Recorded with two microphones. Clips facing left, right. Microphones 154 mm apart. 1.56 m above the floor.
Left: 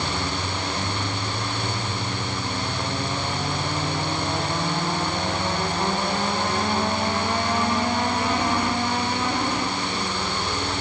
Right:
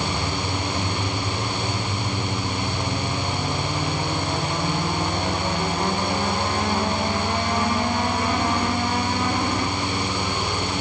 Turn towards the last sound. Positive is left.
No sound to turn to.